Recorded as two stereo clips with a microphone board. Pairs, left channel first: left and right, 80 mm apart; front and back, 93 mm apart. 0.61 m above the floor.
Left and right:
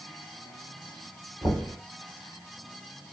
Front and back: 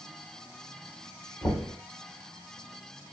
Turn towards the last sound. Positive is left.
turn(degrees=50)